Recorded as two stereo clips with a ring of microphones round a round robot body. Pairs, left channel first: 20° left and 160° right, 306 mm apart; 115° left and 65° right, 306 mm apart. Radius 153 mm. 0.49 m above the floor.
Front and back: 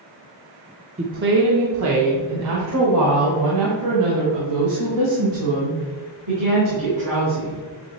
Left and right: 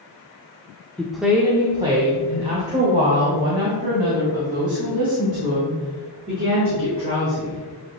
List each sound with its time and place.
1.0 s a woman speaking: 170° right, 0.7 m; by 7.6 s 130° right, 5 m